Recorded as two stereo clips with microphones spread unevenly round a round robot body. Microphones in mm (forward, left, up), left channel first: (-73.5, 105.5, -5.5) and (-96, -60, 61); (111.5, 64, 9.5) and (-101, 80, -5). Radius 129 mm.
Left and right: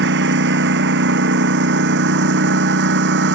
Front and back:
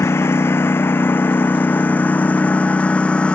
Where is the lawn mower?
85° right; by 3.4 s 90° right.